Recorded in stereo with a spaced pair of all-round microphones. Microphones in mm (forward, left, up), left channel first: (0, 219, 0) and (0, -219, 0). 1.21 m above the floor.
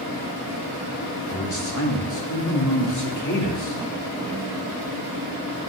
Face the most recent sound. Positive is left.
turn(degrees=40)  # may be behind; listen again after turning